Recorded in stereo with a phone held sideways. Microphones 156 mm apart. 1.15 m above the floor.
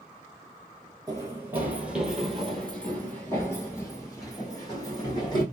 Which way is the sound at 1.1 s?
25° right (ahead or behind).